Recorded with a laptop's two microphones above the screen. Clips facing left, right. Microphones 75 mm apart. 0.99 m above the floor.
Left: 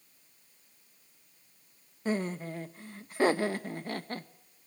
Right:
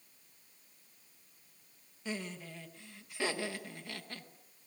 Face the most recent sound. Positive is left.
turn(degrees=40)  # may be behind; listen again after turning